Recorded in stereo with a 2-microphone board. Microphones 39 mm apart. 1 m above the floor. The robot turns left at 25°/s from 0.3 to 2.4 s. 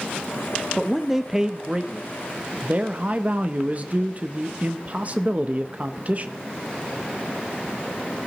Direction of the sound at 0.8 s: Straight ahead.